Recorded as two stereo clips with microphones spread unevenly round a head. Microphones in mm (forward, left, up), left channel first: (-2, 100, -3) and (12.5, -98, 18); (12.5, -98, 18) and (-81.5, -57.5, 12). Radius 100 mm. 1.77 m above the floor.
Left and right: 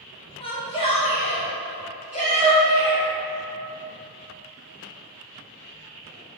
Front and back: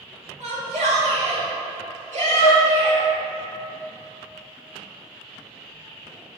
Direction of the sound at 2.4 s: 10° right.